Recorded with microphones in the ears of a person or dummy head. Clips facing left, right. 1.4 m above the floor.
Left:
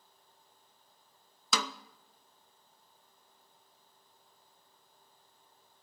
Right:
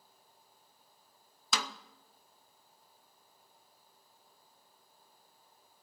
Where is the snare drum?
75° left (ahead or behind), 0.7 m.